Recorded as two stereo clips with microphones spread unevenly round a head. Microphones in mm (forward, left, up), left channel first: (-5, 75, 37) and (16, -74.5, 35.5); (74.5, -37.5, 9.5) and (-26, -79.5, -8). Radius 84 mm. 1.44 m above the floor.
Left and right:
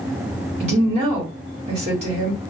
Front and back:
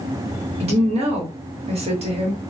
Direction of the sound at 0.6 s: 130° right.